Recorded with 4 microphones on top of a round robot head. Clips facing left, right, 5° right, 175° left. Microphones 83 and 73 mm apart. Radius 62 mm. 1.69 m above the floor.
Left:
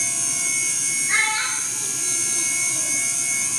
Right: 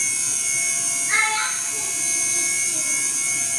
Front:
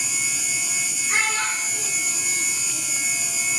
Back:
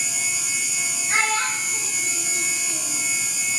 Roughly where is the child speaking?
Behind right.